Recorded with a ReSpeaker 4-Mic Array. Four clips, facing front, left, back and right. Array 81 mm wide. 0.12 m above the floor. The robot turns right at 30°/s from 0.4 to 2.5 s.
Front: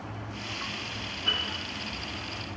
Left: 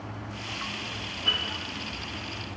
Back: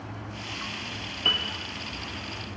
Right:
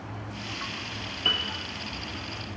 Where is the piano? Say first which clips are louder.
Right 1 dB, back 3 dB; 155° right, 1.1 m; by 1.4 s 150° right, 1.1 m.